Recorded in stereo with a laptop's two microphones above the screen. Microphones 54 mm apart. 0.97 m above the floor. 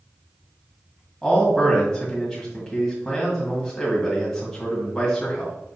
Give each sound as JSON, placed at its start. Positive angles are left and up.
{"t": 1.2, "sound": "a man speaking", "side_deg": 10, "distance_m": 1.7}